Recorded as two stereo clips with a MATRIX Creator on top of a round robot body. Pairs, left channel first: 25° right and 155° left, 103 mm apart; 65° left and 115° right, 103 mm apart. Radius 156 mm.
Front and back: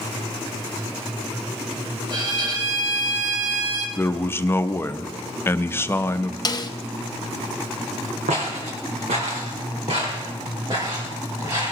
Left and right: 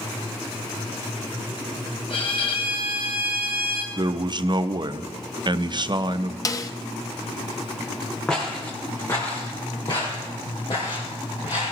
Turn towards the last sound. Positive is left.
turn(degrees=100)